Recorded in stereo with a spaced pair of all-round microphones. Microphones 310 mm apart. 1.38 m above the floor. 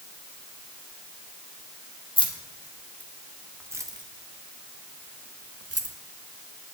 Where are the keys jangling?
15° left (ahead or behind), 2.0 m; by 6.0 s 60° right (ahead or behind), 1.6 m.